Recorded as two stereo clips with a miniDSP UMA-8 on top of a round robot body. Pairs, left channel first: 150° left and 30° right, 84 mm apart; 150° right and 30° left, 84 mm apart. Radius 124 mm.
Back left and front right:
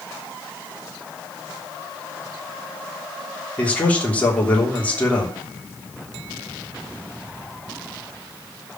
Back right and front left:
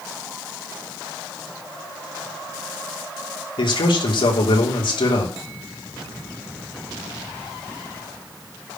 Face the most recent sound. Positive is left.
turn(degrees=-135)